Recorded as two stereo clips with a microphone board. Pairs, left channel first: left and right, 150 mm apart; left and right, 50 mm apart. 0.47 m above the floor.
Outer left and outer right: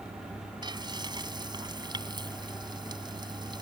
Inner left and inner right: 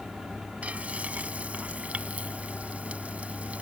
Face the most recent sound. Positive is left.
turn(degrees=-30)  # may be behind; listen again after turning